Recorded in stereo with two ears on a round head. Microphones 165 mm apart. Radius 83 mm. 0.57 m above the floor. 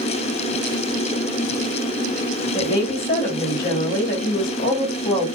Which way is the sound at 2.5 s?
50° left (ahead or behind).